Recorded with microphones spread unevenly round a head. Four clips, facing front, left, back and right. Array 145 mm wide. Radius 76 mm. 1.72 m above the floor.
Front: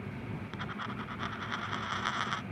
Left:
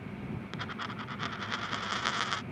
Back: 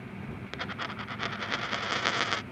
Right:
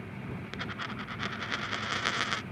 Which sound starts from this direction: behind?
A dropped coin, at 0.5 s.